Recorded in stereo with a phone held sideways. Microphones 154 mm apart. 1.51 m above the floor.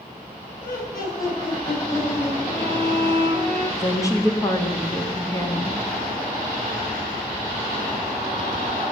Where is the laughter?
70° left (ahead or behind), 9 m.